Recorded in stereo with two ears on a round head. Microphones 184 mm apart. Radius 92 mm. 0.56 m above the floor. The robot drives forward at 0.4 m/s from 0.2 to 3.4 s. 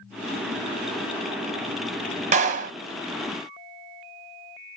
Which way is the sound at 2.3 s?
35° right (ahead or behind).